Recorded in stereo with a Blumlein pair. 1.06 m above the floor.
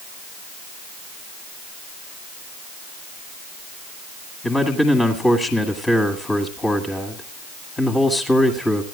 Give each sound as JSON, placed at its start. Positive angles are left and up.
{"t": 4.4, "sound": "a man speaking", "azimuth_deg": 5, "distance_m": 2.0}